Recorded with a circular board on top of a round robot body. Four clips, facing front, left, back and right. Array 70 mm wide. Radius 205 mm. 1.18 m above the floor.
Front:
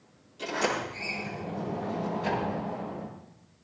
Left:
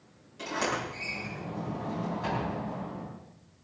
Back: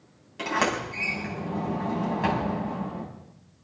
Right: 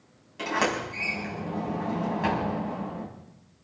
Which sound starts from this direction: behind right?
A sliding door, at 0.4 s.